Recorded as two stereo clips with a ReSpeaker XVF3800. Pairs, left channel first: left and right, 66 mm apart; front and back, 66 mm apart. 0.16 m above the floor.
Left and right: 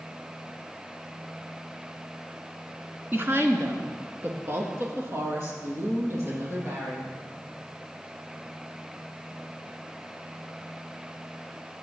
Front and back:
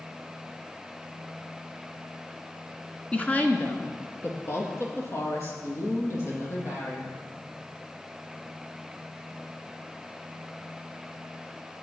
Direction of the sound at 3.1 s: 60° right.